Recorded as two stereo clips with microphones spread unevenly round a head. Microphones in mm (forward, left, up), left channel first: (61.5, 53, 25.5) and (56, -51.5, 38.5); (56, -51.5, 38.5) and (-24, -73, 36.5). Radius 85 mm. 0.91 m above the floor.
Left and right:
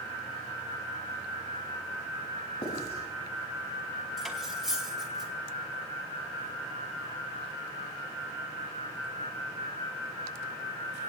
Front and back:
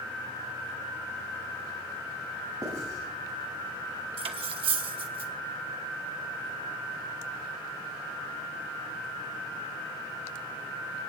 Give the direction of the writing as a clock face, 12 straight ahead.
8 o'clock.